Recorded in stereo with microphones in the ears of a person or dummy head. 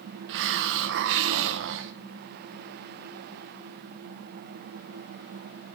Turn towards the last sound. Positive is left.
turn(degrees=-65)  # may be behind; listen again after turning